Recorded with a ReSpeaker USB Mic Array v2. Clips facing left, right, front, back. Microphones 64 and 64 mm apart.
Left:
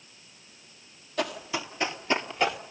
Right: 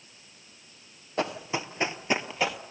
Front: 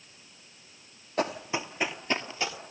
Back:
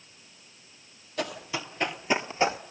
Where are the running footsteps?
40° right, 1.2 m; by 2.6 s 175° left, 1.0 m.